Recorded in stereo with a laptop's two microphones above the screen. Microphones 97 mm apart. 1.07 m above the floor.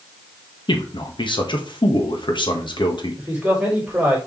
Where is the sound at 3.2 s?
15° right (ahead or behind), 3.5 m.